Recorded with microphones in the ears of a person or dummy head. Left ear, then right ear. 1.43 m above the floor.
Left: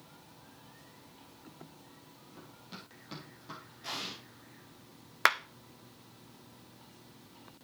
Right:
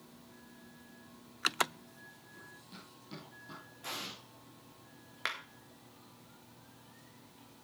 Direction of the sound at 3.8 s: 30° right (ahead or behind).